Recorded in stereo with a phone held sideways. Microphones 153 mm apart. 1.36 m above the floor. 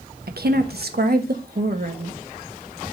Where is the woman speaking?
75° right (ahead or behind), 1.2 m; by 2.2 s 60° right (ahead or behind), 1.7 m.